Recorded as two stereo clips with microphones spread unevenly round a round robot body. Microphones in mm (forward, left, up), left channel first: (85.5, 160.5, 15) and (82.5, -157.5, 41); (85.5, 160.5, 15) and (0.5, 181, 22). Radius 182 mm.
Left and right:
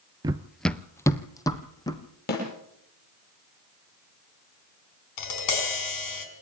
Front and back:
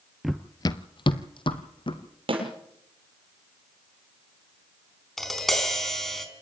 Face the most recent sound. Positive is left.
turn(degrees=75)